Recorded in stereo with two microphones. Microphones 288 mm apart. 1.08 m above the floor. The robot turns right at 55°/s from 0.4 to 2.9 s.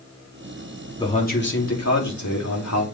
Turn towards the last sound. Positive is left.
turn(degrees=120)